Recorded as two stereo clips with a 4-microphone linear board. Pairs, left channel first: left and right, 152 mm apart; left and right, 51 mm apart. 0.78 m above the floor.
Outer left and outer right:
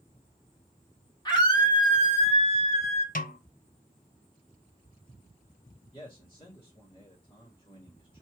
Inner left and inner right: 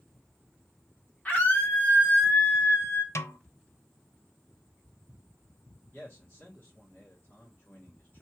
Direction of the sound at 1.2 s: 30° left (ahead or behind).